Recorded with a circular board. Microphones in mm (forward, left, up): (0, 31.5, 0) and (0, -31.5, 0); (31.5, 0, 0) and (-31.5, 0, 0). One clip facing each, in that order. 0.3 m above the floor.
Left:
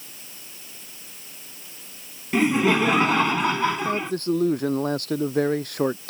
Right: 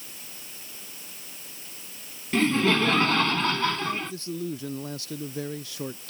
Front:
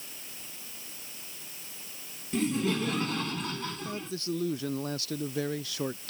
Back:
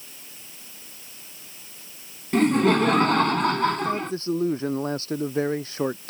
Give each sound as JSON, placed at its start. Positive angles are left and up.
{"t": 2.3, "sound": "laughter", "azimuth_deg": 165}
{"t": 3.8, "sound": "a man speaking", "azimuth_deg": 125}